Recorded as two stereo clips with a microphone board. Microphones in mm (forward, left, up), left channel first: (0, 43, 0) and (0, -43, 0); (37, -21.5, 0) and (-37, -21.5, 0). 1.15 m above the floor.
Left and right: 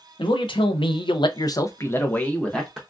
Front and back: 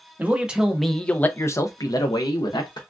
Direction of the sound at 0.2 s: 110° left.